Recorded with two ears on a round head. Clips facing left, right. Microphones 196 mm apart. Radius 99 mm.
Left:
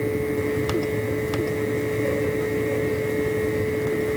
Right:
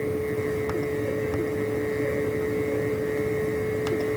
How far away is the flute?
I don't hear a flute.